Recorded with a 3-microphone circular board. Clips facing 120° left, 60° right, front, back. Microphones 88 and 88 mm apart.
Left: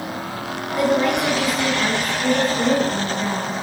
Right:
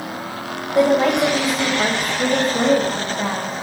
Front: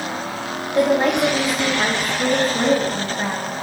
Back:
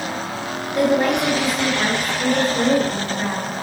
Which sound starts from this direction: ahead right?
A woman speaking, at 0.8 s.